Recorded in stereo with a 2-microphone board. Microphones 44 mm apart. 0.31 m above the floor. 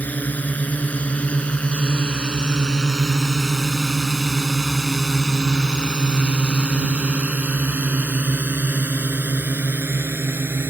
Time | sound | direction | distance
0.0 | a drone | 40° left (ahead or behind) | ?